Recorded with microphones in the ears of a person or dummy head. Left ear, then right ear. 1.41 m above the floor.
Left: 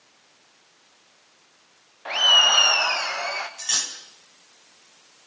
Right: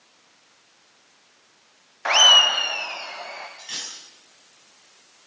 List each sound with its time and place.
2.0 s laughter: 50° right (ahead or behind), 0.6 m; by 3.5 s 60° left (ahead or behind), 1.6 m
3.6 s cutlery clinking: 35° left (ahead or behind), 3.5 m